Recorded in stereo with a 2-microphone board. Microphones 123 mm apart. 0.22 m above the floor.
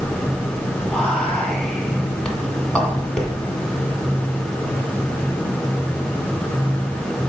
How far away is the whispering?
About 2 m.